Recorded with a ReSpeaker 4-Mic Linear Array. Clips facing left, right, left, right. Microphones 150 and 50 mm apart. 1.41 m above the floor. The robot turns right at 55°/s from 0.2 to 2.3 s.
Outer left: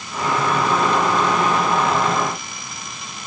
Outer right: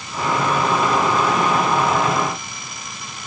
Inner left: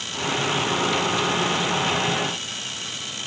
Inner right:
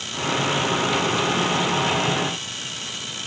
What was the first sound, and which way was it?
Only background noise.